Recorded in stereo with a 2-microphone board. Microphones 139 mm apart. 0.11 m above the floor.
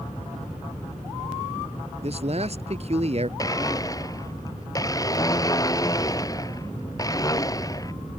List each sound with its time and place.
2.0 s a man speaking: 50° right (ahead or behind)
3.4 s a blender: 25° left (ahead or behind)